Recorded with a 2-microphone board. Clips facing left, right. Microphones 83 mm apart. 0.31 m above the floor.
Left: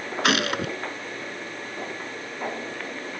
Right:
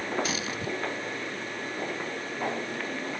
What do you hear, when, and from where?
0.2 s a gunshot: 70° left (ahead or behind)